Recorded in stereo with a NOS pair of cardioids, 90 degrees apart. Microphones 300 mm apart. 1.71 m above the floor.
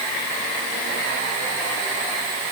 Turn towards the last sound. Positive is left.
No sound to turn to.